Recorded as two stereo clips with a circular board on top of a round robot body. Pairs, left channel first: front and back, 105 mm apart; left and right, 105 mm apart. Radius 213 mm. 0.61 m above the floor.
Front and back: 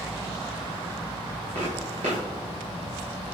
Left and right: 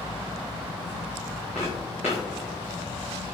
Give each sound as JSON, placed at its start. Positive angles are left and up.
{"t": 1.6, "sound": "footsteps", "azimuth_deg": -165, "distance_m": 0.7}